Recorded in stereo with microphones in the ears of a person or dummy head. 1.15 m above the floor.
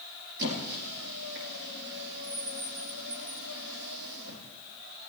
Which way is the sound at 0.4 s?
65° right (ahead or behind).